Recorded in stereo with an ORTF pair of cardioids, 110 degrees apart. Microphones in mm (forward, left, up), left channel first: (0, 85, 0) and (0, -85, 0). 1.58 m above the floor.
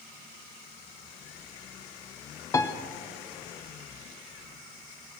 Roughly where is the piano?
Ahead.